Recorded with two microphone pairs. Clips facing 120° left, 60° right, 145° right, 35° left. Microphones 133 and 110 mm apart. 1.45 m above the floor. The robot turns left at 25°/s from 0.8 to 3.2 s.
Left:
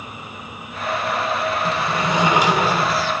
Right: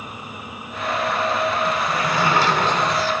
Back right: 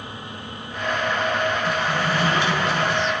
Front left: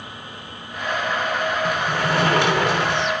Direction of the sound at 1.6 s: 65° left.